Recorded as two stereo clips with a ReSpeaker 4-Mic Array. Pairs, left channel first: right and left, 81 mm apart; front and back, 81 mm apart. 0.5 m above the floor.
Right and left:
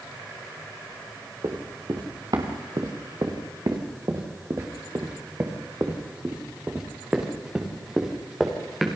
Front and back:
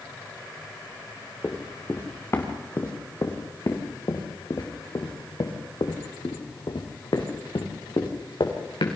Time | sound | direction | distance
1.4 | running footsteps | 65° left | 4 m